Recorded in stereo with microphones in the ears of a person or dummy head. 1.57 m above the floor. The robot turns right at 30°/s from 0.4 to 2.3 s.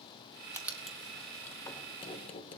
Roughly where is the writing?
Centre.